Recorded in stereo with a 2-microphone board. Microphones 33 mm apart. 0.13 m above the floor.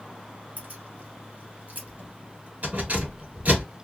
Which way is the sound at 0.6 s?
50° right (ahead or behind).